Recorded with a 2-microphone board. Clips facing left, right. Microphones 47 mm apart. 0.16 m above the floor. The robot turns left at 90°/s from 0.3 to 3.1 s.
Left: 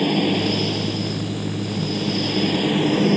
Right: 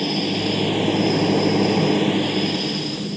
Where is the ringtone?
I don't hear a ringtone.